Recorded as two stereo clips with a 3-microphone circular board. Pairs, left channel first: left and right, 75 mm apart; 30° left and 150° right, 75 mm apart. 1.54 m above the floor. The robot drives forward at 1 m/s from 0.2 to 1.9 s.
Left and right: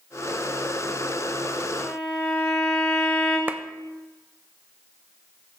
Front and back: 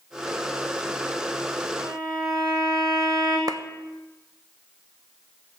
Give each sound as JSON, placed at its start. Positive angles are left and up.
{"t": 1.8, "sound": "a violin", "azimuth_deg": 175, "distance_m": 6.0}
{"t": 3.5, "sound": "a clap", "azimuth_deg": -155, "distance_m": 0.6}